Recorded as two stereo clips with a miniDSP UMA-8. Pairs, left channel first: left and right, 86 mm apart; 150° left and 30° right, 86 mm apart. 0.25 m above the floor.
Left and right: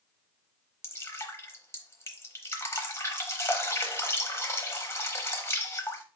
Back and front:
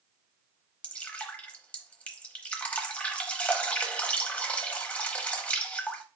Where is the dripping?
95° left, 0.9 m.